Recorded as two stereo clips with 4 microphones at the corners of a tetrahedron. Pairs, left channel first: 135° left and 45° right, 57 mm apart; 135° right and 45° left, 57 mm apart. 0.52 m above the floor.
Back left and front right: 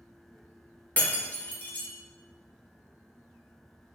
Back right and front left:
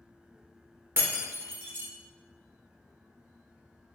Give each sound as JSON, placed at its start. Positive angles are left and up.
{"t": 1.0, "sound": "breaking glass", "azimuth_deg": 80, "distance_m": 1.0}